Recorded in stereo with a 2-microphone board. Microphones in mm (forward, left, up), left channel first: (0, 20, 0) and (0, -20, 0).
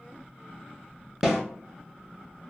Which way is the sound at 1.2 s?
5° right (ahead or behind).